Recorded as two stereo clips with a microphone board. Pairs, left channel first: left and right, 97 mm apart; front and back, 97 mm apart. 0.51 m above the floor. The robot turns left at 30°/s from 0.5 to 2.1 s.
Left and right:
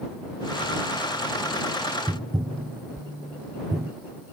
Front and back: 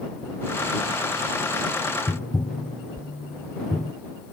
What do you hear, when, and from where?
2.1 s tapping: 50° right